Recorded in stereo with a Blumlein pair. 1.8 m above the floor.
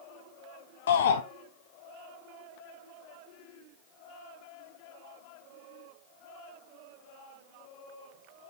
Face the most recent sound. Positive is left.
turn(degrees=60)